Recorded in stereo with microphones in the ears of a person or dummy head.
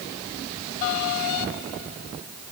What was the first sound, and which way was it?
Only background noise.